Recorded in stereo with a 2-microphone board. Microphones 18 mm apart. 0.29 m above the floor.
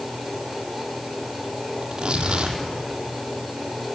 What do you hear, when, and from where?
1.8 s tearing paper: 70° right (ahead or behind), 3.5 m